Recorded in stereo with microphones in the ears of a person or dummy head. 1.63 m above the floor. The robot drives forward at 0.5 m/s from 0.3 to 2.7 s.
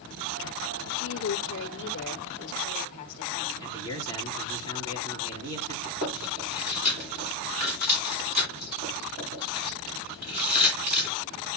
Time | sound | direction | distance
0.9 | a woman speaking | 65° left (ahead or behind) | 1.0 m
3.6 | a man speaking | 55° right (ahead or behind) | 3 m
5.8 | chewing | 45° right (ahead or behind) | 9.5 m